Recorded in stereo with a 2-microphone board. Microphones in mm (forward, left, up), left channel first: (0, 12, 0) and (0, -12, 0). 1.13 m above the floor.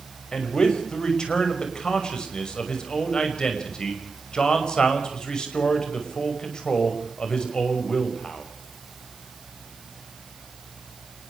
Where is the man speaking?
35° left (ahead or behind), 6 m.